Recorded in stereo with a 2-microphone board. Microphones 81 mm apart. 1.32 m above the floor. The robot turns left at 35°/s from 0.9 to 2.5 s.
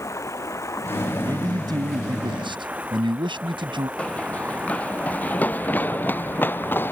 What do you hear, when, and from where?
0.0 s running water: 40° left; by 6.9 s 20° right
1.2 s a man speaking: 40° right; by 3.9 s 85° right
4.0 s running footsteps: 15° left (ahead or behind); by 6.9 s 25° left (ahead or behind)